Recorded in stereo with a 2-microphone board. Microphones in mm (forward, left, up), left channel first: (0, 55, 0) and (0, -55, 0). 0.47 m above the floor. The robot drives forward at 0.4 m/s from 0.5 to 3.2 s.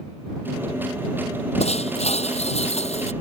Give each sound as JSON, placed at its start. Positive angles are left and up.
{"t": 1.6, "sound": "breaking glass", "side_deg": 70}